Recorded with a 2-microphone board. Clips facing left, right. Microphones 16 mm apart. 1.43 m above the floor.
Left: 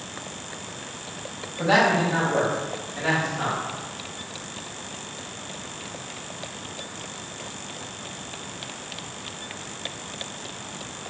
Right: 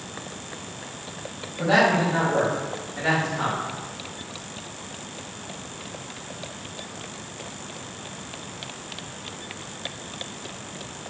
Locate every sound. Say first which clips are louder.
1.6 s a man speaking: even; 25° left (ahead or behind), 1.8 m; by 3.6 s 5° right (ahead or behind), 2.5 m